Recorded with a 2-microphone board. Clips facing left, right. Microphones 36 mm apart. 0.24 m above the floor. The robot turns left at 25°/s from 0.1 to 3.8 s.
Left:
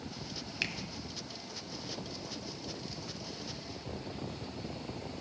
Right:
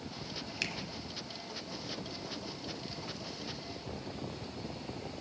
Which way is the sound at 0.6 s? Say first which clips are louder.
Left 2 dB; 10° left (ahead or behind).